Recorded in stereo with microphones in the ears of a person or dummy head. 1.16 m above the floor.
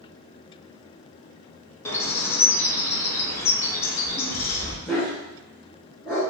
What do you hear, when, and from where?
1.9 s a bird: 10° left (ahead or behind), 0.7 m
4.8 s a dog barking: 10° left (ahead or behind), 1.5 m